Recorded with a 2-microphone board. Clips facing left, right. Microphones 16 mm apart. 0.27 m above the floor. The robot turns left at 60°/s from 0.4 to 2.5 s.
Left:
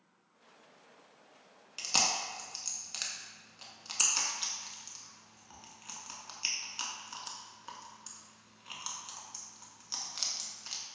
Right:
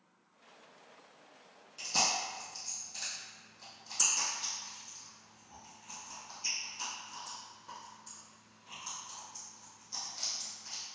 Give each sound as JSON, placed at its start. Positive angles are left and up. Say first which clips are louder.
{"t": 1.8, "sound": "chewing", "louder": "left 1 dB", "side_deg": 50, "distance_m": 0.6}